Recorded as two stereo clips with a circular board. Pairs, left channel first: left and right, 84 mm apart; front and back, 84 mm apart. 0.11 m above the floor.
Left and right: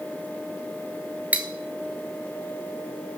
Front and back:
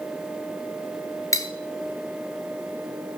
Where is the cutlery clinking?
25° right, 1.0 m.